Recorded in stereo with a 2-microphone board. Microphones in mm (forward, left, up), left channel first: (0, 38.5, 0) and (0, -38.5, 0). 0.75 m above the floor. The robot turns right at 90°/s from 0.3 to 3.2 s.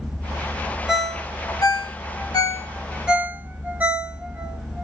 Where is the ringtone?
10° right (ahead or behind), 0.8 m; by 4.8 s 20° right (ahead or behind), 0.8 m.